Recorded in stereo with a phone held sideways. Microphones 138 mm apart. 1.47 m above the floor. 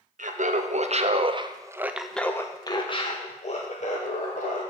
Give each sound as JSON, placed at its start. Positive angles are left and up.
{"t": 0.2, "sound": "laughter", "side_deg": -65, "distance_m": 1.1}